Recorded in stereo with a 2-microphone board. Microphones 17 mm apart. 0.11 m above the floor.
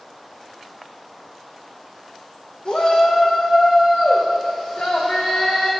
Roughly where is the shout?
Left.